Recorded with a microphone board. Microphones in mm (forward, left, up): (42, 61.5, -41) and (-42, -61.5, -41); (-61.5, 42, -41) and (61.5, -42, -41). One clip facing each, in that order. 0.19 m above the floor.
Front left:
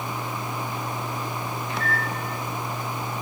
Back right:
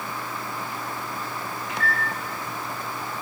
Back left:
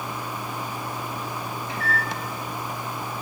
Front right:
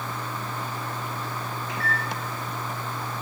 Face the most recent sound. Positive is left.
turn(degrees=100)